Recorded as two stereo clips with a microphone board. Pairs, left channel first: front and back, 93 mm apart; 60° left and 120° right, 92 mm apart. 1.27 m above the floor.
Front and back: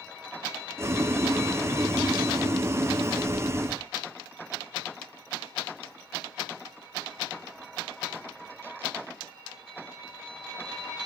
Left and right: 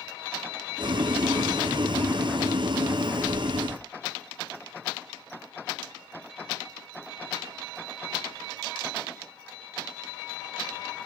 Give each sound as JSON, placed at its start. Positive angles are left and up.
{"t": 0.8, "sound": "boiling", "azimuth_deg": -125, "distance_m": 0.8}